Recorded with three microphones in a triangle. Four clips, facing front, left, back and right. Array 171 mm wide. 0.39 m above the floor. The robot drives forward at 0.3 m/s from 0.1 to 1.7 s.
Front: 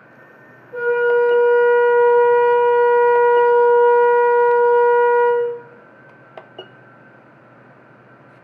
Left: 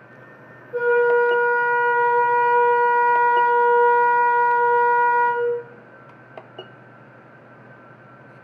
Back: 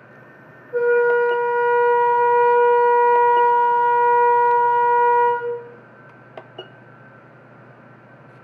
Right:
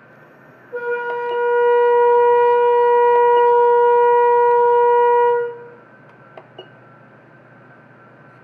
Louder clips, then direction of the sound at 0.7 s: Left 5 dB, even; 100° right.